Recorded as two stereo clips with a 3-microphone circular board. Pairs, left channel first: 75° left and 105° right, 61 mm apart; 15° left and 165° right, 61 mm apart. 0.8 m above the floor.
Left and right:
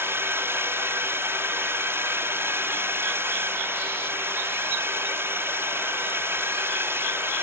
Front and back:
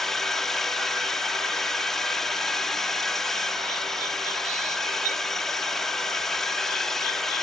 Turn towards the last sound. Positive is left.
turn(degrees=-65)